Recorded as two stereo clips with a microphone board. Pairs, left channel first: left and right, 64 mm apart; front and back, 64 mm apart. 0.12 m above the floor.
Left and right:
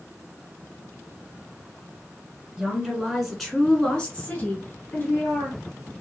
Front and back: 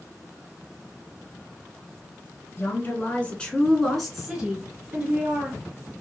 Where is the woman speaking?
20° right, 1.4 m; by 5.6 s 135° left, 1.7 m.